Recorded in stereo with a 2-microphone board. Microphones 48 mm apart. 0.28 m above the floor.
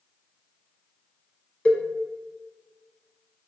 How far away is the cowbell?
About 0.8 m.